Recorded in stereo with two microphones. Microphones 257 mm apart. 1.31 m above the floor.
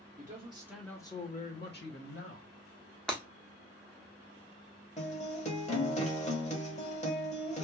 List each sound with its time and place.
0.2 s a man speaking: 35° right (ahead or behind), 0.6 m; by 2.5 s 55° left (ahead or behind), 1.2 m
3.1 s breaking glass: 5° left (ahead or behind), 0.9 m
5.0 s a guitar: 25° left (ahead or behind), 0.8 m